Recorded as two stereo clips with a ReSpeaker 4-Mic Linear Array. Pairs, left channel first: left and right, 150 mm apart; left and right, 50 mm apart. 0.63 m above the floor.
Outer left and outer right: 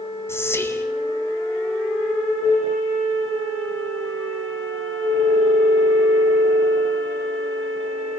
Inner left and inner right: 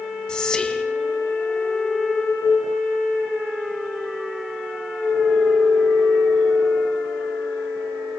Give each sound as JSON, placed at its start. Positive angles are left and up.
{"t": 0.3, "sound": "whispering", "side_deg": 15, "distance_m": 2.5}